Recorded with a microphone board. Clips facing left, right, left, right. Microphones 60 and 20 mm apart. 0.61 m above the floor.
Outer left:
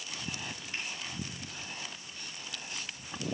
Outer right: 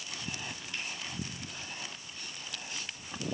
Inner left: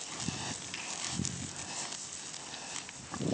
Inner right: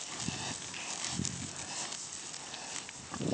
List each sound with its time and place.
0.7 s a finger snap: 30° left (ahead or behind), 6 m